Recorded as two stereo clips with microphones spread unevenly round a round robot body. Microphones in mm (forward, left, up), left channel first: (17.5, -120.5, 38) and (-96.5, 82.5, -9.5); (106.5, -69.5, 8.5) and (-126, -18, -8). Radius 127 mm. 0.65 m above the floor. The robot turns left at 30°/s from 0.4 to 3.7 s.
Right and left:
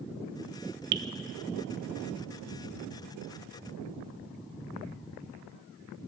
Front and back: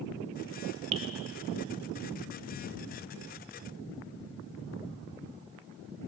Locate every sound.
0.9 s dripping: 110° left, 0.6 m; by 1.0 s 105° left, 0.6 m